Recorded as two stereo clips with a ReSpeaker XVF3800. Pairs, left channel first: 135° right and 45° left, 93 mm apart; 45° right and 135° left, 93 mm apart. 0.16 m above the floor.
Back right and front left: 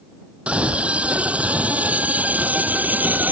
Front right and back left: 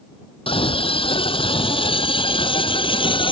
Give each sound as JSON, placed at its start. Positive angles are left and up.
{"t": 0.5, "sound": "a scream", "azimuth_deg": -35}